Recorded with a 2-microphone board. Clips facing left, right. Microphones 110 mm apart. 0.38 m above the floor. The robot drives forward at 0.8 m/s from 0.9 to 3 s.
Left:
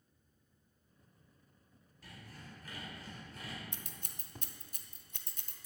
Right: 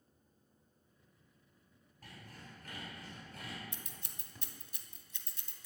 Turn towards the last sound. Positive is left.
turn(degrees=50)  # may be behind; listen again after turning